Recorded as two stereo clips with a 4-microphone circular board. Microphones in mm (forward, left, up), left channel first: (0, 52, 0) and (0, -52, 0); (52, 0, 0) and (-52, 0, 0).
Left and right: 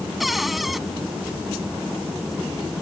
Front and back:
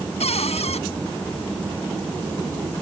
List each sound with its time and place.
0.2 s a cupboard door: straight ahead